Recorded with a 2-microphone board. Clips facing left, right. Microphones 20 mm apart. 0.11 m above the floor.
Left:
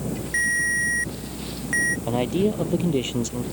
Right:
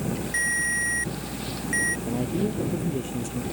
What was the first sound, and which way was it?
A ringtone, 15° left (ahead or behind).